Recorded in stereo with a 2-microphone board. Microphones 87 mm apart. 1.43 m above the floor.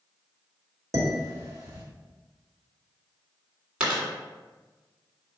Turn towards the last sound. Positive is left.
turn(degrees=-10)  # may be behind; listen again after turning